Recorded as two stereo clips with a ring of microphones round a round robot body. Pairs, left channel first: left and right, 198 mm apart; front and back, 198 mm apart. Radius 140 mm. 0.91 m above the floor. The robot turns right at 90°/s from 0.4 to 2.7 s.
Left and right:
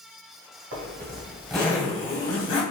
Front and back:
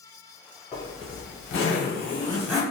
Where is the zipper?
75° right, 1.7 m; by 2.6 s 95° left, 1.7 m.